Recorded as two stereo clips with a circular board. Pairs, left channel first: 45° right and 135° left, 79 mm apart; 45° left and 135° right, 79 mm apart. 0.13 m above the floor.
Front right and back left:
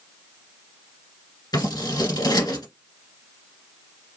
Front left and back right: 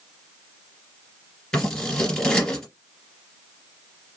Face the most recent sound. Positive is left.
turn(degrees=-40)